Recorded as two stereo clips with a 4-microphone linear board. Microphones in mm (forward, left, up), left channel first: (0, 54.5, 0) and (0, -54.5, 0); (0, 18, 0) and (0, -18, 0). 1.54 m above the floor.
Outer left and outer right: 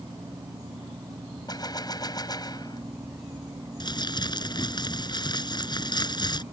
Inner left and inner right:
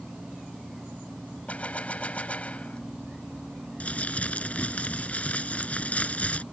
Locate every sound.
1.5 s a gunshot: 35° left (ahead or behind)
3.8 s crumpling: 40° left (ahead or behind)